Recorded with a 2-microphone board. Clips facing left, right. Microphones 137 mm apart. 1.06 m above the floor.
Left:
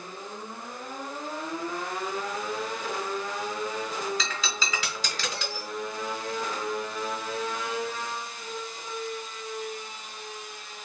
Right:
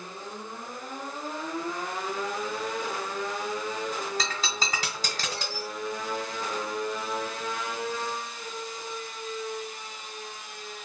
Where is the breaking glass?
45° right (ahead or behind), 1.4 m.